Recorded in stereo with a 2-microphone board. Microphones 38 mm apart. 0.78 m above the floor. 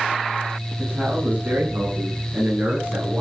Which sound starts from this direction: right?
A man speaking, at 0.8 s.